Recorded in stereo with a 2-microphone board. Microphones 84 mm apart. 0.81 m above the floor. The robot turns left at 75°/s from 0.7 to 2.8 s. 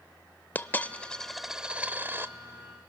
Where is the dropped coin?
20° left (ahead or behind), 0.5 m; by 2.3 s 25° right (ahead or behind), 0.5 m.